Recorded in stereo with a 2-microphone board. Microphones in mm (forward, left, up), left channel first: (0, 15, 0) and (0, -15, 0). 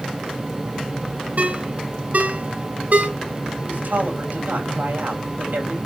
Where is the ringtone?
60° right (ahead or behind), 2.0 m.